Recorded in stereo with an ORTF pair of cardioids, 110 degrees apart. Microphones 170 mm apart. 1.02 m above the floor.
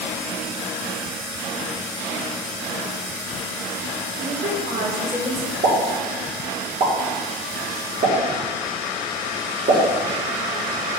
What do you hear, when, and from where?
4.2 s a woman speaking: 50° right, 2.5 m
5.6 s a pop: 50° right, 2.5 m